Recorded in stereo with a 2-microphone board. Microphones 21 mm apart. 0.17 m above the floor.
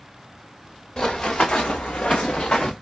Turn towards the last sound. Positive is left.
turn(degrees=45)  # may be behind; listen again after turning